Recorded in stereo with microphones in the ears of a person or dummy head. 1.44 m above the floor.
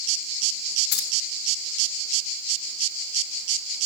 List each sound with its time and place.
0.9 s keys jangling: 60° left (ahead or behind), 1.7 m